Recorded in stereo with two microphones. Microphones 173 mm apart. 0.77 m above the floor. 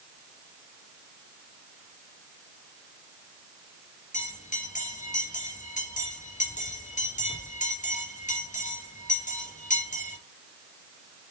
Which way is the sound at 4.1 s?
45° left (ahead or behind).